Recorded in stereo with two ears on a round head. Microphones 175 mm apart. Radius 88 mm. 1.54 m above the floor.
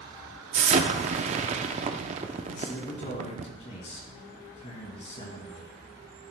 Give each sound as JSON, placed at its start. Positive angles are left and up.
{"t": 0.5, "sound": "an explosion", "side_deg": -35, "distance_m": 0.7}
{"t": 2.5, "sound": "a man speaking", "side_deg": 35, "distance_m": 2.5}